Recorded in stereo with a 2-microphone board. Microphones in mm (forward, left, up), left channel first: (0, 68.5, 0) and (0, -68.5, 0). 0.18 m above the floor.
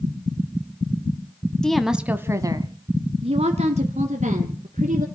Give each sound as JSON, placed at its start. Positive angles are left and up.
{"t": 1.6, "sound": "a woman speaking", "side_deg": 5, "distance_m": 1.0}